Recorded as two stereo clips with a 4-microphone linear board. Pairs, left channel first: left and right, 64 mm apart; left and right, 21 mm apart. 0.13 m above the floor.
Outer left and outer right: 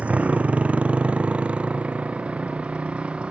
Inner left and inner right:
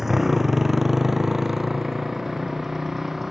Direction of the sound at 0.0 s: 20° right (ahead or behind).